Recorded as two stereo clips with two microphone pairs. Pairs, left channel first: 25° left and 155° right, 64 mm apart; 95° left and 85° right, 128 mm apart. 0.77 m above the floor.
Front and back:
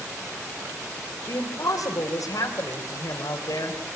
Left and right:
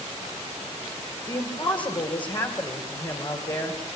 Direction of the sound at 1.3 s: 45° left.